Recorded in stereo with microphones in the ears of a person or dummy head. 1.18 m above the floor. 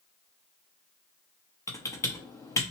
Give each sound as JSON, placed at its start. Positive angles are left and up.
{"t": 1.7, "sound": "typing on a keyboard", "side_deg": 15, "distance_m": 0.8}